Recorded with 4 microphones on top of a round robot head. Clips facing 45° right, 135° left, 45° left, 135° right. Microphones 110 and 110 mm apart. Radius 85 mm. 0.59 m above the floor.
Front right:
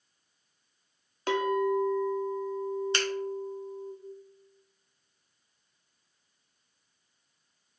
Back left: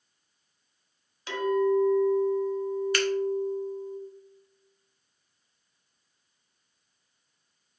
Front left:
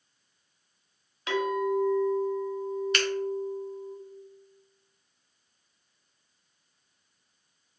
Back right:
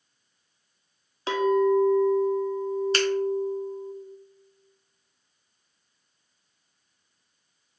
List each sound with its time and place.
1.3 s a clink: 80° right, 0.7 m
2.9 s a finger snap: 95° right, 0.9 m